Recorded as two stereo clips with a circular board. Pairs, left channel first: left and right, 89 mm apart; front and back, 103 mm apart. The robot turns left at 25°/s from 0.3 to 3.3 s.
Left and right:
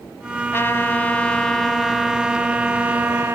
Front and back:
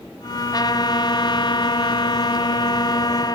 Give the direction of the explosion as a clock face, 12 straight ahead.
No explosion in this recording.